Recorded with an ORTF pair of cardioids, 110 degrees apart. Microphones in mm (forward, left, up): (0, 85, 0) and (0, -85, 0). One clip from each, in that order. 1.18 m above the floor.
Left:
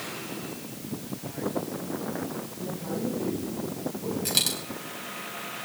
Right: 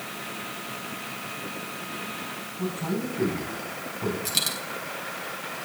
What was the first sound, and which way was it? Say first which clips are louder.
A man speaking: right 3 dB; 60° right.